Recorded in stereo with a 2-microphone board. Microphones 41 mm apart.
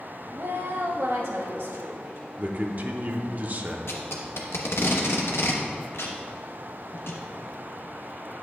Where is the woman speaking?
80° right, 0.8 m; by 2.3 s 70° right (ahead or behind), 2.5 m.